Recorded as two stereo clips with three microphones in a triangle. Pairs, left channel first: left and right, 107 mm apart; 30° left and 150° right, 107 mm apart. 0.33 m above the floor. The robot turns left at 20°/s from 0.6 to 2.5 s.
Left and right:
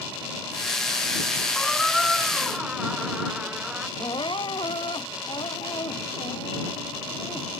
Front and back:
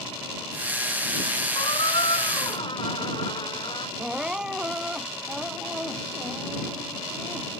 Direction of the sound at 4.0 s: 130° left.